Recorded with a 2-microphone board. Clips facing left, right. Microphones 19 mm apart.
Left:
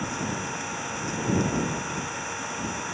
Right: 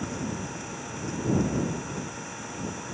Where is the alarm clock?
No alarm clock in this recording.